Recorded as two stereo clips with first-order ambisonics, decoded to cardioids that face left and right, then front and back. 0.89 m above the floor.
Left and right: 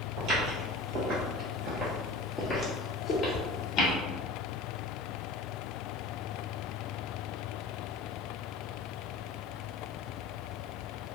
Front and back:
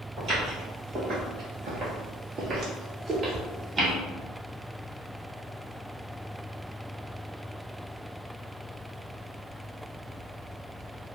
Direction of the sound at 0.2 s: 120° right.